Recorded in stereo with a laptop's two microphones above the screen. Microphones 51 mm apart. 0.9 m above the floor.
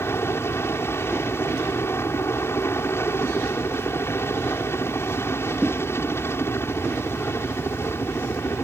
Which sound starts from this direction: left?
A helicopter, at 0.0 s.